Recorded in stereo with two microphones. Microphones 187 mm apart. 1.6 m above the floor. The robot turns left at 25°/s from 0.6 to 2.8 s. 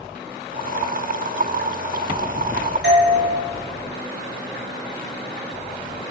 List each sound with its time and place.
2.8 s a doorbell: 70° right (ahead or behind), 1.4 m